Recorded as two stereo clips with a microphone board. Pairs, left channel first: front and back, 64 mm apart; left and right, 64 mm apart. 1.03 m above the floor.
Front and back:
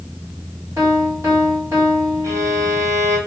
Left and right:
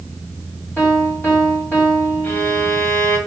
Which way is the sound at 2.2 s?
150° left.